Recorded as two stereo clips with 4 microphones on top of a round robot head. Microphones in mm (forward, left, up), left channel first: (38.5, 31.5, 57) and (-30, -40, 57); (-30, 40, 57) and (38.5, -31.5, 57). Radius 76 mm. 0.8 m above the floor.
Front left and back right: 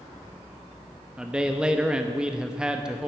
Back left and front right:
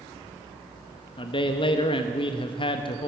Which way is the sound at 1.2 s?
145° left.